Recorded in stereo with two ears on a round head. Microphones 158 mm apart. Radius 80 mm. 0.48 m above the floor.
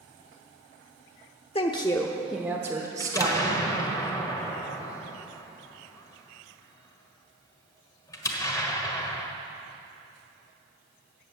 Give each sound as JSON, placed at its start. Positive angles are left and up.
{"t": 1.6, "sound": "a woman speaking", "side_deg": 35, "distance_m": 0.9}
{"t": 3.0, "sound": "an explosion", "side_deg": 20, "distance_m": 1.5}